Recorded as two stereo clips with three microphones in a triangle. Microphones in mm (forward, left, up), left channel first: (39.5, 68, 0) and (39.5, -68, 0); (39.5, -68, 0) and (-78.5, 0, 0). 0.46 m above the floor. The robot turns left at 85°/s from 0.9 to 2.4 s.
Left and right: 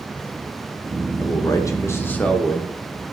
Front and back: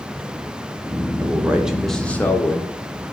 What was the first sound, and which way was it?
A man speaking, 115° left.